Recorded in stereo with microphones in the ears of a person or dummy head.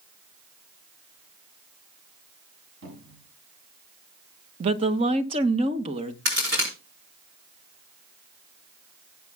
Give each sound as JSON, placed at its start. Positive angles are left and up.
{"t": 2.8, "sound": "a cupboard door", "side_deg": -60, "distance_m": 8.0}
{"t": 4.6, "sound": "a woman speaking", "side_deg": -35, "distance_m": 0.9}
{"t": 6.2, "sound": "a crack", "side_deg": -55, "distance_m": 4.5}